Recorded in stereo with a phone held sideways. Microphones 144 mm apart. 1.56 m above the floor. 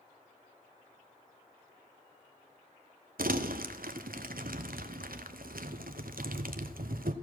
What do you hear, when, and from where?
3.2 s crumpling: 85° right, 0.8 m